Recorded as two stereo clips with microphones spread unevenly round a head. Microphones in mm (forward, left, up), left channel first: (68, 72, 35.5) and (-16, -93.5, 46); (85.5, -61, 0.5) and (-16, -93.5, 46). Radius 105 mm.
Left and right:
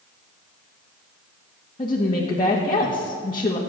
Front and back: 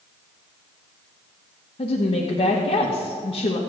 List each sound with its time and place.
1.8 s a woman speaking: straight ahead, 2 m